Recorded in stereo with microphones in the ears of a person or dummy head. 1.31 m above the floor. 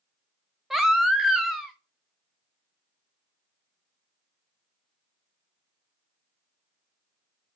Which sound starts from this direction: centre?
A baby crying, at 0.7 s.